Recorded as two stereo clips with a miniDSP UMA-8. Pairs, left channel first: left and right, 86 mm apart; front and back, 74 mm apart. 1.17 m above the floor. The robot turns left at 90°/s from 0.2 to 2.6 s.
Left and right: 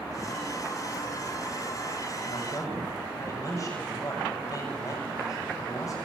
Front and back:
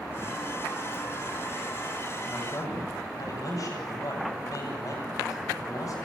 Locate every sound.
2.3 s a man speaking: 70° left, 8.5 m; by 6.0 s 40° left, 8.5 m